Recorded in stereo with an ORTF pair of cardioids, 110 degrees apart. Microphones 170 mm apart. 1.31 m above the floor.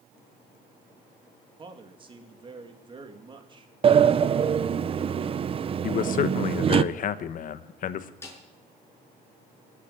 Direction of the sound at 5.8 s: 55° left.